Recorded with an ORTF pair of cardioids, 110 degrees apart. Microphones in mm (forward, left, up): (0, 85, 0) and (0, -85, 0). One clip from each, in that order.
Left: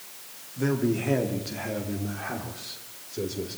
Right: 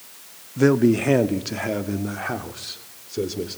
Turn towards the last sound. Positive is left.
turn(degrees=-35)